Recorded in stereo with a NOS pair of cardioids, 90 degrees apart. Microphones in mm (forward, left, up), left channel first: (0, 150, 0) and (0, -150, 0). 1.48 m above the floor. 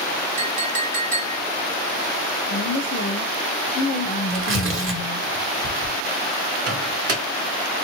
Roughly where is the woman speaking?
Ahead left.